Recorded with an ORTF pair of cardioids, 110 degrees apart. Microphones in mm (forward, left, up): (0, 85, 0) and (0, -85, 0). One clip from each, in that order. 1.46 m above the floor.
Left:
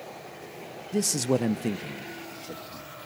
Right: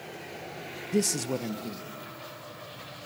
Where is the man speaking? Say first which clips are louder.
Left 3 dB; 15° right, 0.7 m; by 2.9 s 80° left, 3 m.